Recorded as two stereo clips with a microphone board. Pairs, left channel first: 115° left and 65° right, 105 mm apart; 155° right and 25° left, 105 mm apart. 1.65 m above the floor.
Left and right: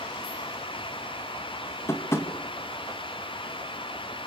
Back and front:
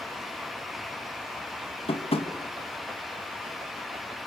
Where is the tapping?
Straight behind, 2 m.